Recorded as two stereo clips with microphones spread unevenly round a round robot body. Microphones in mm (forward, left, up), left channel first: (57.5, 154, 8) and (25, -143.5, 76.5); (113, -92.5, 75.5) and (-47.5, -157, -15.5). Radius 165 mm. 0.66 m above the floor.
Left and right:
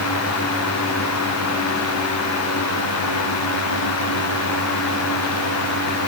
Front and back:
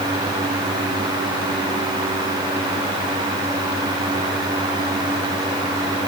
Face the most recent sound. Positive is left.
No sound to turn to.